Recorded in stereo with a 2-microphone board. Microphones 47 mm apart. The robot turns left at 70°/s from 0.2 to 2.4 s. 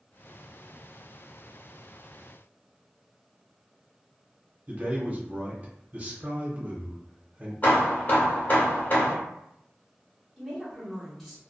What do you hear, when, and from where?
4.7 s a man speaking: 35° right (ahead or behind), 0.8 m
7.6 s hammering: 35° left (ahead or behind), 0.9 m
10.4 s a woman speaking: centre (ahead or behind), 1.0 m